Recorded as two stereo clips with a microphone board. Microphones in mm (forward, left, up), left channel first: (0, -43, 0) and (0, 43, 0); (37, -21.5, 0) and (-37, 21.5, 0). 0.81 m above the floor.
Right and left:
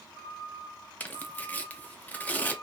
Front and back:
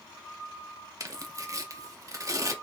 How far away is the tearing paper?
About 0.6 m.